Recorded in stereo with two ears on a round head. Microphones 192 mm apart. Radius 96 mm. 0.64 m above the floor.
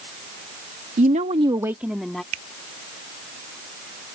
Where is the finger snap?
70° right (ahead or behind).